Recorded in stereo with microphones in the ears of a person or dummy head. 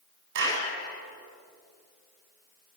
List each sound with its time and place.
0.3 s a clap: 60° right (ahead or behind), 8 m